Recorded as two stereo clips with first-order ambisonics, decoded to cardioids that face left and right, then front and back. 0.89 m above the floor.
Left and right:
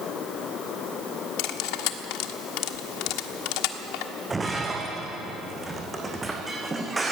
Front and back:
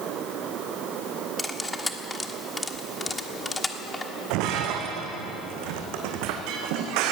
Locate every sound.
1.4 s cutlery clinking: 80° left, 1.3 m
4.3 s breaking glass: 170° right, 2.5 m